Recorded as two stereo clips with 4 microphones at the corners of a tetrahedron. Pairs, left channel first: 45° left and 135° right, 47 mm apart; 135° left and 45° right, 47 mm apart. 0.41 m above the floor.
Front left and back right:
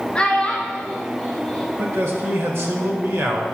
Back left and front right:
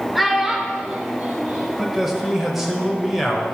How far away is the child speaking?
About 1.0 m.